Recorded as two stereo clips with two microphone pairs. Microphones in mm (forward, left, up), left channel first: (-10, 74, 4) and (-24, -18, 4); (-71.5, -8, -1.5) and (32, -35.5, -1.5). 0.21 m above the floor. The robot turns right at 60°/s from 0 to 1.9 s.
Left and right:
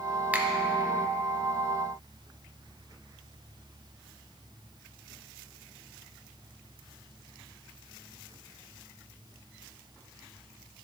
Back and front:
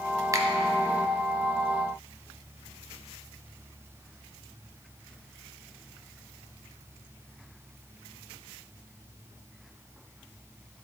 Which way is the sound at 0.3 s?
35° right.